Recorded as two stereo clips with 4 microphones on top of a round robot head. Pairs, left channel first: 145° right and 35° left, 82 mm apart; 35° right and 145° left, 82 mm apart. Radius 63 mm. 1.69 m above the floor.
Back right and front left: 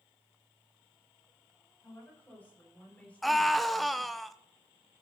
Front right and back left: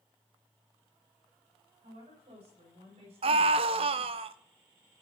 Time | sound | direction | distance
1.8 | a woman speaking | 145° left | 6.5 m
3.2 | a scream | 125° left | 0.7 m